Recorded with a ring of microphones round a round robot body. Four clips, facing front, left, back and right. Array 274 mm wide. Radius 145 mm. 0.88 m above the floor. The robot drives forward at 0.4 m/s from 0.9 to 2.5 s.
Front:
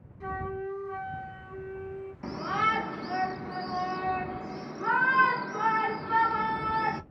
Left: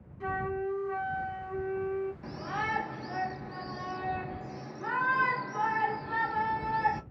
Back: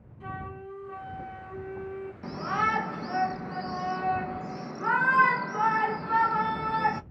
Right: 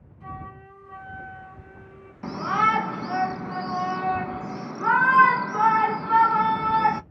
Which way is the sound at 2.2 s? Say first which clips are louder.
Right 11 dB, even; 85° right.